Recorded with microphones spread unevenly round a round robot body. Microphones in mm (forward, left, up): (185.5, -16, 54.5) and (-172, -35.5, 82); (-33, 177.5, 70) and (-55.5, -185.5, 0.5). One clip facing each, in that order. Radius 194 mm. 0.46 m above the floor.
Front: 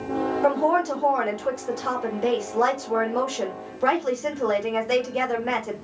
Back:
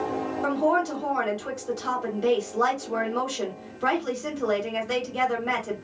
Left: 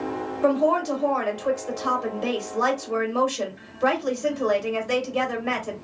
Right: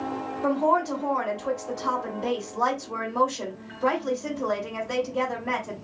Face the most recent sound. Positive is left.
turn(degrees=70)